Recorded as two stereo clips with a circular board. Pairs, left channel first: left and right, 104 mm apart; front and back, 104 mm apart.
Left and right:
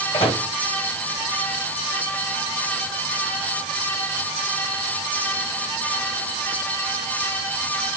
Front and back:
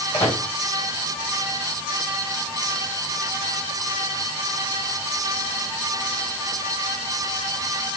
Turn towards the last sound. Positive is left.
turn(degrees=65)